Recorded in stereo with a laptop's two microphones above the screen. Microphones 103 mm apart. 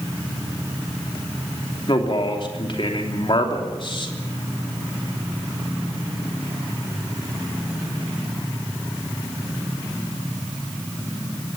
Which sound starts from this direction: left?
A man speaking, at 1.9 s.